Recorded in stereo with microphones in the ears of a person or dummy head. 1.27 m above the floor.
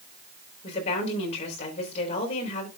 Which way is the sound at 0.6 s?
35° left (ahead or behind).